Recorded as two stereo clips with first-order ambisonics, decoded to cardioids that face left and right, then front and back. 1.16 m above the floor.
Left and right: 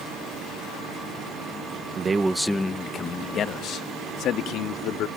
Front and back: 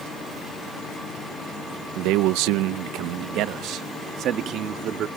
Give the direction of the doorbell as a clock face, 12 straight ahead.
I don't hear a doorbell.